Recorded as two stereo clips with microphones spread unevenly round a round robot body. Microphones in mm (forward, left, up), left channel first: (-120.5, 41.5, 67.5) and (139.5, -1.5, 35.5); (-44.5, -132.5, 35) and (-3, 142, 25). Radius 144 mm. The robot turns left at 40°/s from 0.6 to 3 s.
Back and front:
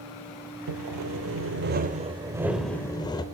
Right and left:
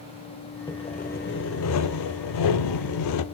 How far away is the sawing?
About 0.6 m.